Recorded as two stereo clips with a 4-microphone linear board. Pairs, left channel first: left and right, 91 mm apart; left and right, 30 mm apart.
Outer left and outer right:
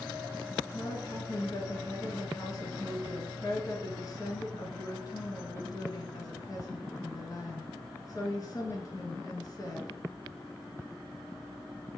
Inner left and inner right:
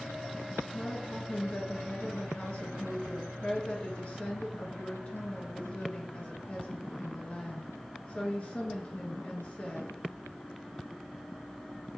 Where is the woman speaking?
45° left (ahead or behind), 1.5 m.